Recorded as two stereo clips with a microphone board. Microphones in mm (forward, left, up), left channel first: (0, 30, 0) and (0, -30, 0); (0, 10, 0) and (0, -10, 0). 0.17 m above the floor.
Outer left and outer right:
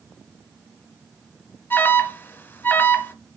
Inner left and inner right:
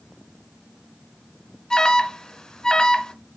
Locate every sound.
1.7 s an alarm: 35° left (ahead or behind), 1.4 m